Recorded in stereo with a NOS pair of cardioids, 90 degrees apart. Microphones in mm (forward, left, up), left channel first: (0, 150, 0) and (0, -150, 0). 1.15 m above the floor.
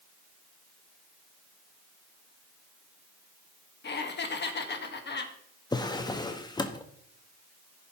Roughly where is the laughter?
Ahead left.